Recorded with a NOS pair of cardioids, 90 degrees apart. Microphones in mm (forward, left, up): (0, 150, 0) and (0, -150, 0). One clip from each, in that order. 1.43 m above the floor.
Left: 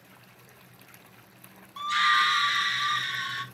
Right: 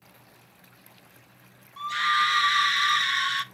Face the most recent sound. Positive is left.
turn(degrees=-50)